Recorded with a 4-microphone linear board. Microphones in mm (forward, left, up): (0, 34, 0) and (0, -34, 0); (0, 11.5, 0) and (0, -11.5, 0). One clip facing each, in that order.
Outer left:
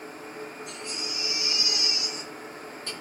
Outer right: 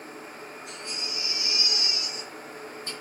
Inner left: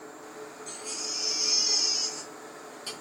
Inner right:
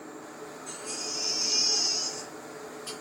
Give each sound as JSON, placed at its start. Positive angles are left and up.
{"t": 0.7, "sound": "a baby crying", "side_deg": 80, "distance_m": 2.5}